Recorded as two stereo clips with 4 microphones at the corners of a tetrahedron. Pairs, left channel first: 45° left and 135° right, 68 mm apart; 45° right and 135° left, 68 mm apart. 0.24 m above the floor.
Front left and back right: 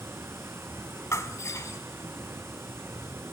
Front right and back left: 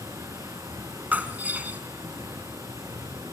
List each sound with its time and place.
0.0 s running water: 175° left, 4 m
1.1 s breaking glass: 75° left, 1.3 m